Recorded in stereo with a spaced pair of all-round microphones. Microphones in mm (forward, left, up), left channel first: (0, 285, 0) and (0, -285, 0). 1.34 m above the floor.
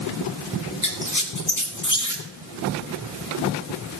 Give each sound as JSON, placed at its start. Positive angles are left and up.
{"t": 0.8, "sound": "a squeak", "side_deg": 30, "distance_m": 1.4}